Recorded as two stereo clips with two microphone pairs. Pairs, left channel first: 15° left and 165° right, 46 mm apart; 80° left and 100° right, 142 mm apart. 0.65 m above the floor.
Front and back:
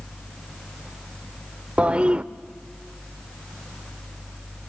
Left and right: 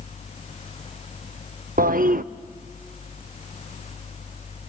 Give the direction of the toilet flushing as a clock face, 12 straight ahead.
3 o'clock.